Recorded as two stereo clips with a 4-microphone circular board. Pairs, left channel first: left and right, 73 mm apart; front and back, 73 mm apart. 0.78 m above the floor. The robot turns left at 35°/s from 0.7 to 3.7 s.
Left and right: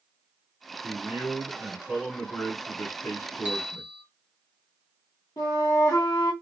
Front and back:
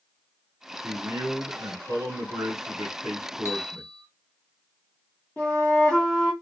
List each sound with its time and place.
0.8 s a man speaking: 145° right, 1.6 m; by 3.9 s 115° left, 1.6 m
3.5 s a bell: 160° right, 0.8 m; by 4.0 s 170° right, 0.8 m
5.4 s a flute: 65° left, 1.8 m